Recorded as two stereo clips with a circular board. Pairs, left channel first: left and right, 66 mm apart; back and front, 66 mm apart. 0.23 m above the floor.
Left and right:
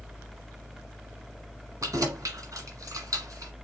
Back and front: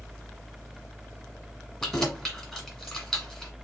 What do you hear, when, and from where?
1.8 s keys jangling: 95° right, 1.3 m